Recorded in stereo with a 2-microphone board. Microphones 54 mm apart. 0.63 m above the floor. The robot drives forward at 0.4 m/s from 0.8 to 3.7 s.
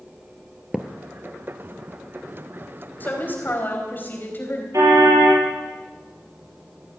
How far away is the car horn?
About 8 m.